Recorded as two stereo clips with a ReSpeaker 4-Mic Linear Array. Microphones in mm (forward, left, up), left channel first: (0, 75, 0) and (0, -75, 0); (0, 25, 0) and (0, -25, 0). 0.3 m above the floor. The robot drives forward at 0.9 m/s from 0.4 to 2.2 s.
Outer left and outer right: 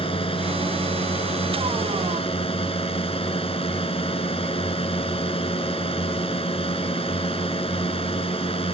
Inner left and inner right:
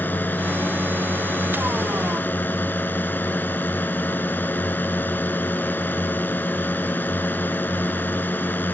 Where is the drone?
35° left (ahead or behind); by 8.8 s 40° left (ahead or behind).